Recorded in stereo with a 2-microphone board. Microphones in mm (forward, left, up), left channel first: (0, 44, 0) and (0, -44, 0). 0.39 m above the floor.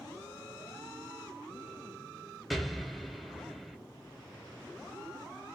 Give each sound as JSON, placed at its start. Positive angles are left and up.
{"t": 2.5, "sound": "an explosion", "side_deg": 0, "distance_m": 0.7}